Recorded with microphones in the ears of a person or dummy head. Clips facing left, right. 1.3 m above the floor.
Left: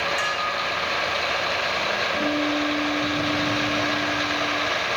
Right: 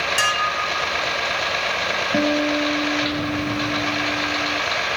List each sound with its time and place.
0.2 s dishes clattering: 50° right (ahead or behind), 3 m
2.1 s a guitar: 80° right, 5.5 m